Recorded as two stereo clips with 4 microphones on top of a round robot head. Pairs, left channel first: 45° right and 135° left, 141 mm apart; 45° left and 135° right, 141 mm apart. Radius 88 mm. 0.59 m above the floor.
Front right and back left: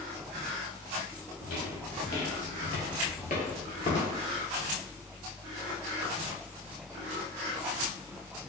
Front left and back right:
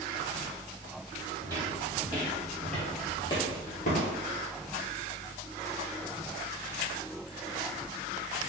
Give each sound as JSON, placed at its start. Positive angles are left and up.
{"t": 1.4, "sound": "footsteps", "azimuth_deg": -70, "distance_m": 1.4}